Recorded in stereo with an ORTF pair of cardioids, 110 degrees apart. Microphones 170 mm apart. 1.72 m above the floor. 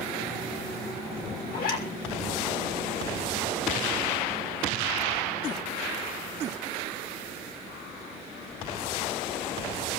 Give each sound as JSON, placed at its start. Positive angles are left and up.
{"t": 1.5, "sound": "a zipper", "azimuth_deg": 65, "distance_m": 6.5}